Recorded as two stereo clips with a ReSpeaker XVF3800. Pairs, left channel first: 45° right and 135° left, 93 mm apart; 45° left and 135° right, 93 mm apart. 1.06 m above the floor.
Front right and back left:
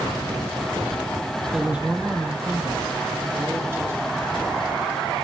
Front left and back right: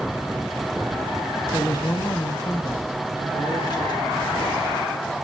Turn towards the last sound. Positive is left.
turn(degrees=75)